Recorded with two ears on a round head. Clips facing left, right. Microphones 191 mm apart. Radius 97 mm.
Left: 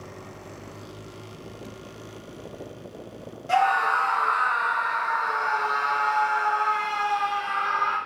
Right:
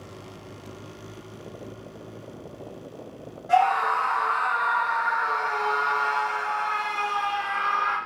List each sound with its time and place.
3.5 s a scream: 35° left (ahead or behind), 1.1 m; by 8.0 s 60° right (ahead or behind), 1.9 m